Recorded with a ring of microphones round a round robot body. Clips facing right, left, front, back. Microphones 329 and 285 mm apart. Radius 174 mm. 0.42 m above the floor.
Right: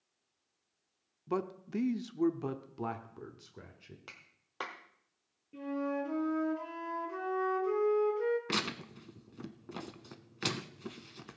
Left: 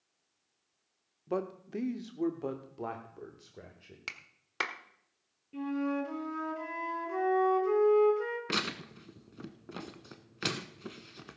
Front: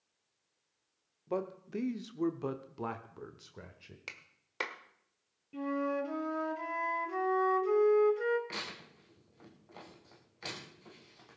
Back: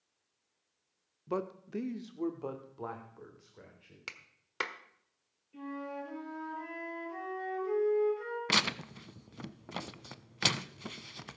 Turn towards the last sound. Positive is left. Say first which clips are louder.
# even, back 9 dB
turn(degrees=-175)